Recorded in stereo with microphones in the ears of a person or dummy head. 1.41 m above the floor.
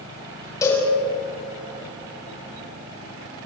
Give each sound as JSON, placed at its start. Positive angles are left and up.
{"t": 0.6, "sound": "a cowbell", "side_deg": 15, "distance_m": 6.5}